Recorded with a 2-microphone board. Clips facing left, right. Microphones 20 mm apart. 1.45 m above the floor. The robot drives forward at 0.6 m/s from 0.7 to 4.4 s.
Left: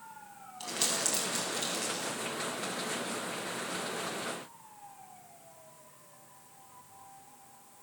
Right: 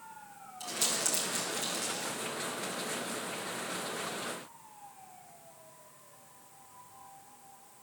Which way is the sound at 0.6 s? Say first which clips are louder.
Left 1 dB; 30° left (ahead or behind).